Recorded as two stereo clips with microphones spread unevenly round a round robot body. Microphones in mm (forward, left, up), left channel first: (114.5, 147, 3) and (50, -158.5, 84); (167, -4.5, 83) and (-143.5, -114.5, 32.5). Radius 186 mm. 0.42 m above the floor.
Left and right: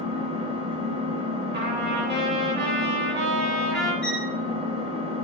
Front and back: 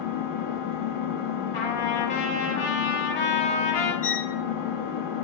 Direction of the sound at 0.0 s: 20° right.